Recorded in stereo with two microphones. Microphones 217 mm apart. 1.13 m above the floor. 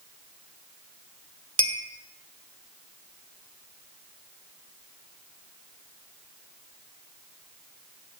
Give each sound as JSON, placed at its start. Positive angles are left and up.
{"t": 1.6, "sound": "a clink", "side_deg": -70, "distance_m": 1.2}